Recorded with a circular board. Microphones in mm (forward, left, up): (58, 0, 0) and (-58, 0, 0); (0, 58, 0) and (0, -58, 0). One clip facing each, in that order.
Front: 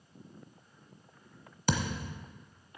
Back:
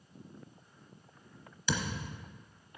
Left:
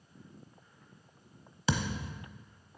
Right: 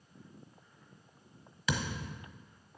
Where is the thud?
35° left, 1.0 m.